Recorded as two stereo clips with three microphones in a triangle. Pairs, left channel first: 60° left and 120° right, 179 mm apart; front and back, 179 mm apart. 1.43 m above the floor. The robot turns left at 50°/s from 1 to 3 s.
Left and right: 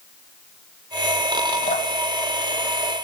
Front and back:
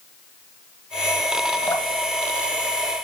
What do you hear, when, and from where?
1.7 s dripping: 75° left, 0.7 m; by 1.9 s 65° left, 0.7 m